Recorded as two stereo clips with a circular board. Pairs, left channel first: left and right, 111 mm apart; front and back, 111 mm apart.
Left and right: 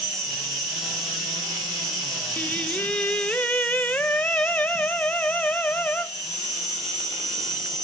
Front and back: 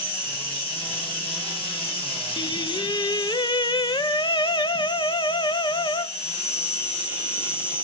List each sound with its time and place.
0.0 s an insect: 5° right, 2.5 m
2.4 s singing: 20° left, 0.5 m